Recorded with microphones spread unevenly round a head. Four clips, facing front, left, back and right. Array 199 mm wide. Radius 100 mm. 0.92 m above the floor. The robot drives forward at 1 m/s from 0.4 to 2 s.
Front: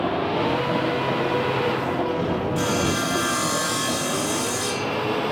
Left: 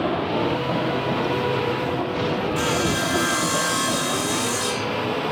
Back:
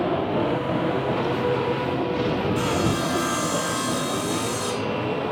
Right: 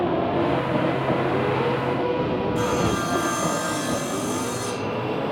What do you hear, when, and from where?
2.5 s sawing: 130° right, 8 m